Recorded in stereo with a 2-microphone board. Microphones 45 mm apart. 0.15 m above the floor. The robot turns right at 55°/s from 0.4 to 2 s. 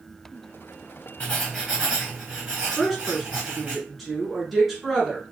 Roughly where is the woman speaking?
Centre.